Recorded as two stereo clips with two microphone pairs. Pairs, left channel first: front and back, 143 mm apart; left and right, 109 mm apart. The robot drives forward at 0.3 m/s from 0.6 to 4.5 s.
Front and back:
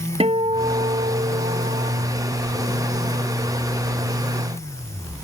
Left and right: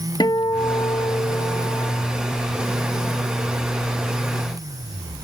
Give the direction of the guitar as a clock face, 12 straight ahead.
7 o'clock.